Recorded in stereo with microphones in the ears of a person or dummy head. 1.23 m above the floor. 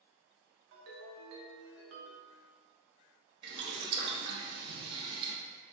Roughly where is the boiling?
Right.